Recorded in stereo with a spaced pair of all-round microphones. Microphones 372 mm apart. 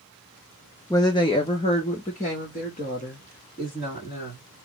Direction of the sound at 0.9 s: 10° left (ahead or behind).